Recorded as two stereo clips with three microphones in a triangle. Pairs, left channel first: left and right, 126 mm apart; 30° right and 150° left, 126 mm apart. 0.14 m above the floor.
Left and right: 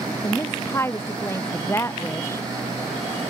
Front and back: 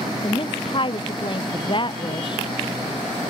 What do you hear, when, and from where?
0.2 s a woman speaking: 20° left